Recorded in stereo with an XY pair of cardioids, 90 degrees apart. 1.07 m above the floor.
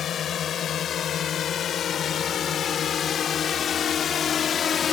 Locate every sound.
0.0 s a drone: 65° left; by 4.9 s 55° left